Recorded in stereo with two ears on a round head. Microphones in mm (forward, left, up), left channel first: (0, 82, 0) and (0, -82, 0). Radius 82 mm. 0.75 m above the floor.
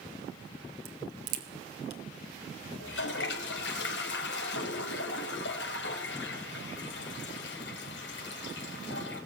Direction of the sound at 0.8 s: 65° right (ahead or behind).